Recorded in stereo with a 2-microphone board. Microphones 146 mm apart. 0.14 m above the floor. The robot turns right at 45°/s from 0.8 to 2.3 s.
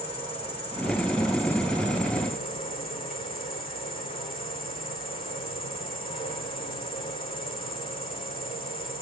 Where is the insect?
15° left, 6.5 m; by 9.0 s 80° left, 6.5 m.